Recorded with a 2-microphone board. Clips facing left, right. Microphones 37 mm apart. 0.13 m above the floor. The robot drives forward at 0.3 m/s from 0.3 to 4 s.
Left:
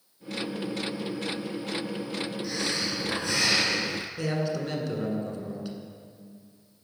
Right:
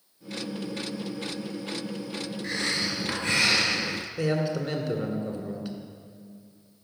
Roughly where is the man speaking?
Centre.